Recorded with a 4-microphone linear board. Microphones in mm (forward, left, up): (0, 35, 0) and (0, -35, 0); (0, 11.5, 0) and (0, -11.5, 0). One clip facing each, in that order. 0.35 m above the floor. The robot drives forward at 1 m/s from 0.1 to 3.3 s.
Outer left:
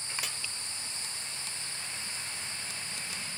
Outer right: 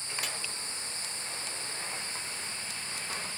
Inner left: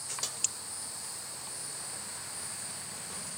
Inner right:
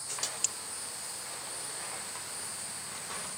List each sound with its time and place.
0.2 s a snare drum: centre (ahead or behind), 1.1 m